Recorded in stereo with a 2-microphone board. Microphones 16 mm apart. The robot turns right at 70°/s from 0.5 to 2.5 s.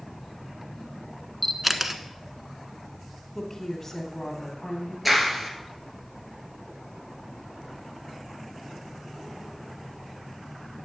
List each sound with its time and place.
1.4 s a camera shutter: 5° left (ahead or behind), 0.9 m; by 2.0 s 15° right (ahead or behind), 0.9 m
3.4 s a woman speaking: 25° left (ahead or behind), 2.5 m
5.0 s a clap: 5° right (ahead or behind), 2 m